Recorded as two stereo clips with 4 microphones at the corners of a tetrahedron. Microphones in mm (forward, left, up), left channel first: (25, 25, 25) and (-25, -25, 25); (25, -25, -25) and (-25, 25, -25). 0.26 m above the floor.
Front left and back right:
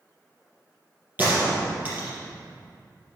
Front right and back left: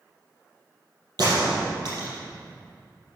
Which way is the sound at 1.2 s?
160° left.